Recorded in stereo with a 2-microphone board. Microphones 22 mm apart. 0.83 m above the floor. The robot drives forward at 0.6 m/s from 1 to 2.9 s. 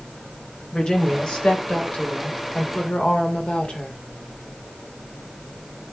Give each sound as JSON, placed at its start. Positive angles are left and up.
{"t": 0.7, "sound": "a woman speaking", "side_deg": 40, "distance_m": 3.5}